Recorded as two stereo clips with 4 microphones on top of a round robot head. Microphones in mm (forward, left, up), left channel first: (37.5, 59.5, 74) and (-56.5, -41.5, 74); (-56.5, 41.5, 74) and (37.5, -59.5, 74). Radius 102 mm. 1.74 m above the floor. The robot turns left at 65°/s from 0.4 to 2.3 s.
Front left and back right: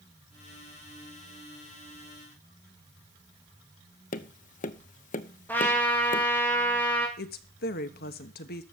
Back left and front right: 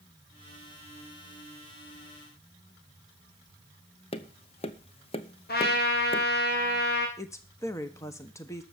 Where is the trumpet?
125° left, 4 m.